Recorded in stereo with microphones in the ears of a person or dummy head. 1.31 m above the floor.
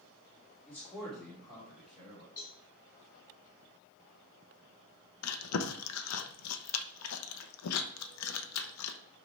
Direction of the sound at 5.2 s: 80° left.